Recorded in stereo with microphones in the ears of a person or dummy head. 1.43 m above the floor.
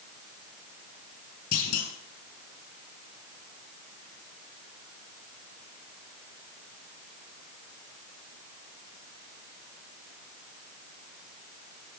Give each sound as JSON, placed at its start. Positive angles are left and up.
{"t": 1.5, "sound": "a clunk", "side_deg": 60, "distance_m": 6.0}